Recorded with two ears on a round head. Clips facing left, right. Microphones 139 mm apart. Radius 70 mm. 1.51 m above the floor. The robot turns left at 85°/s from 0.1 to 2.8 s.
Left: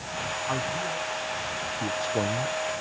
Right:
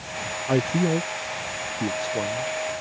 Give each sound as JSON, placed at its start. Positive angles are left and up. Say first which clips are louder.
{"t": 0.5, "sound": "a man speaking", "louder": "right 11 dB", "side_deg": -40}